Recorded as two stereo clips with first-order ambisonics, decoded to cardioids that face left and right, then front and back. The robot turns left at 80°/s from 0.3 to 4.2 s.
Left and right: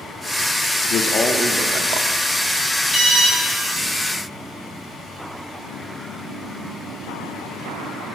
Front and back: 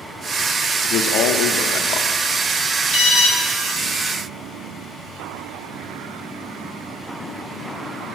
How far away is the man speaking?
About 0.6 m.